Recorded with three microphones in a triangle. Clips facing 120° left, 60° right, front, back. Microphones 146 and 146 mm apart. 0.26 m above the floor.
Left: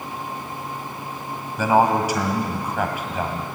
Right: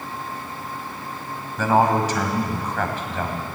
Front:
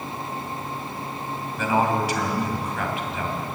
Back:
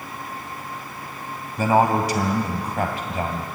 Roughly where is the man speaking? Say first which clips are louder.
Left 1 dB, back 4 dB; behind.